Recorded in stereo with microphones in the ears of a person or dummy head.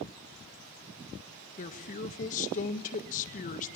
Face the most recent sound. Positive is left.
turn(degrees=40)  # may be behind; listen again after turning